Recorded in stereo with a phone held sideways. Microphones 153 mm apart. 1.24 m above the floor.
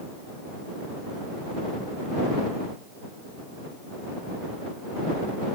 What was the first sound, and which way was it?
Only background noise.